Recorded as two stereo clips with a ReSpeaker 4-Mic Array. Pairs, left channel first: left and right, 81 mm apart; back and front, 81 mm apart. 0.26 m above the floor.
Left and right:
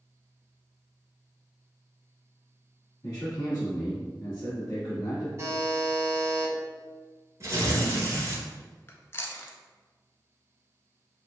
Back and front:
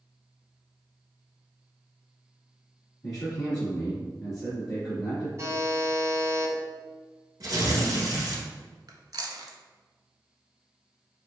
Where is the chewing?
30° left, 0.6 m.